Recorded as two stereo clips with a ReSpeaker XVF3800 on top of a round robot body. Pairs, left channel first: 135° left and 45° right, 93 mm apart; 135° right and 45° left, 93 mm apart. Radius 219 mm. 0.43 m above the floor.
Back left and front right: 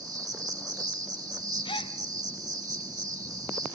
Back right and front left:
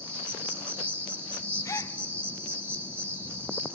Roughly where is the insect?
Ahead.